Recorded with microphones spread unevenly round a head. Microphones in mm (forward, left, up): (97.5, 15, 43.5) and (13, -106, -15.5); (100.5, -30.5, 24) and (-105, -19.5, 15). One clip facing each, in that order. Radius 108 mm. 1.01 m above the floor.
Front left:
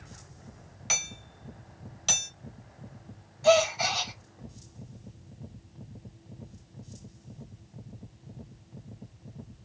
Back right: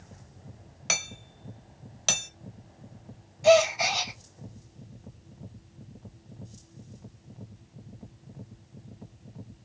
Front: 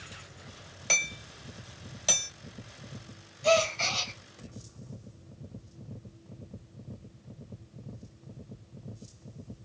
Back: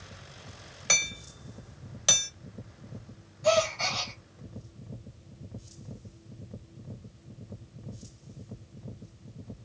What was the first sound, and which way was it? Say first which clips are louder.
Hammering: back right 2 dB, back 1 dB; 105° right.